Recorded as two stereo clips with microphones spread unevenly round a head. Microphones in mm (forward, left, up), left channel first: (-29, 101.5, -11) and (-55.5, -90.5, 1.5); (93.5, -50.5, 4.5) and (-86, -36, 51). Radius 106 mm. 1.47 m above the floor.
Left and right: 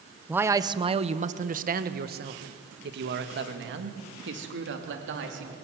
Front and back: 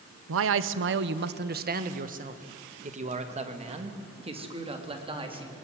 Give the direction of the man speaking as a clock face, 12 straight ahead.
6 o'clock.